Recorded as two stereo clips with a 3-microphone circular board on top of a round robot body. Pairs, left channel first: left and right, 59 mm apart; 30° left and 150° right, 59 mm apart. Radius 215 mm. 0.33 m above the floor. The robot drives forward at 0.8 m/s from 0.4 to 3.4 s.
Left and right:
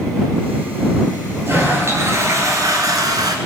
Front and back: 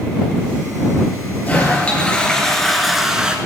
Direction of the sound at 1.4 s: 35° right.